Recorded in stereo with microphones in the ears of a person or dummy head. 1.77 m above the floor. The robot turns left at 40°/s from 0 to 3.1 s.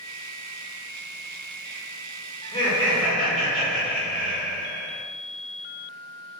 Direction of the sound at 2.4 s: 25° left (ahead or behind).